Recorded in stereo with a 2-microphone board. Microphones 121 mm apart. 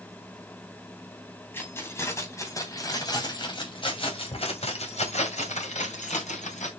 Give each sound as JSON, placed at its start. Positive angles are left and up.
{"t": 1.5, "sound": "keys jangling", "side_deg": 15, "distance_m": 3.5}